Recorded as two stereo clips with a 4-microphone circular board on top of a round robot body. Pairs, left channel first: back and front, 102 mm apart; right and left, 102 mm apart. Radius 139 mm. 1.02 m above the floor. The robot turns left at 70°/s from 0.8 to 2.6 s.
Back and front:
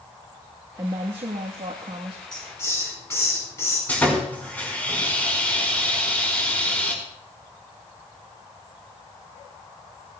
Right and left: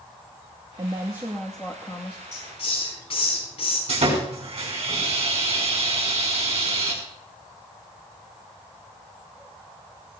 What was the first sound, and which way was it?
A woman speaking, 50° left.